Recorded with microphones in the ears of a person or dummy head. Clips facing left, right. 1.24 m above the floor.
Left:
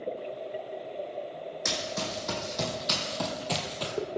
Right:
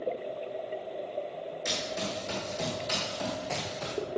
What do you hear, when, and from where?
1.6 s running footsteps: 70° left (ahead or behind), 3.5 m; by 3.9 s 45° left (ahead or behind), 1.8 m